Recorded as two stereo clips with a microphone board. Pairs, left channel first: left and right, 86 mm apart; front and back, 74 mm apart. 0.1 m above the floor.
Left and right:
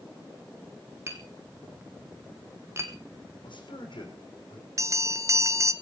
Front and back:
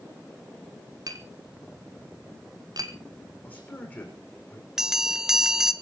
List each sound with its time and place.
1.1 s tapping: 150° right, 1.9 m
3.4 s a man speaking: 70° left, 6.5 m
4.8 s a bell: 100° right, 1.0 m